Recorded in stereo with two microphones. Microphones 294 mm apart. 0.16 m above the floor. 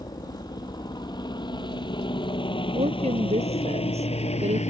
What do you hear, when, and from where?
0.0 s a helicopter: 15° left (ahead or behind); by 4.7 s 25° left (ahead or behind)
2.7 s a woman speaking: 20° right (ahead or behind)